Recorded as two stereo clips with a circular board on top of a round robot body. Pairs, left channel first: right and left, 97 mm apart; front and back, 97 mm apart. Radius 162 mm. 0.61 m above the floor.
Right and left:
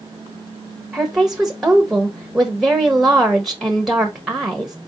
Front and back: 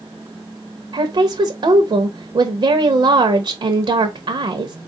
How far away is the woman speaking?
About 0.9 m.